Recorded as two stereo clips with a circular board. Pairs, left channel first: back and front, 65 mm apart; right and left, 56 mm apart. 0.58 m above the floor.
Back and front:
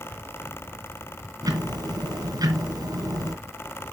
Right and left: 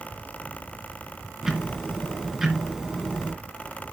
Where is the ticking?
10° left, 3 m.